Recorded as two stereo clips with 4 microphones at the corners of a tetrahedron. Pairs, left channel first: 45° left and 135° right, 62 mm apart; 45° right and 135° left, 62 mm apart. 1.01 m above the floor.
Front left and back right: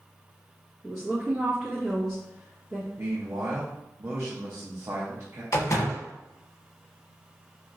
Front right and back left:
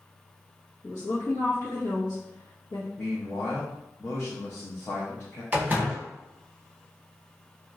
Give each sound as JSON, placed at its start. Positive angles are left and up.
{"t": 0.8, "sound": "a woman speaking", "azimuth_deg": -35, "distance_m": 1.3}
{"t": 3.0, "sound": "a man speaking", "azimuth_deg": -90, "distance_m": 0.7}
{"t": 5.5, "sound": "a door slam", "azimuth_deg": 75, "distance_m": 0.9}